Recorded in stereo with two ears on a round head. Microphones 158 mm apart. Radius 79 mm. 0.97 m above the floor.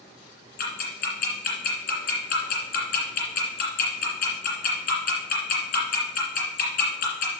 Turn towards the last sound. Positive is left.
turn(degrees=50)  # may be behind; listen again after turning